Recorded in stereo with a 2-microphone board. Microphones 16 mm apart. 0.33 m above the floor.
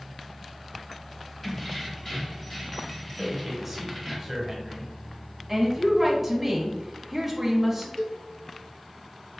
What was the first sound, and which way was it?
Keys jangling, 25° left (ahead or behind).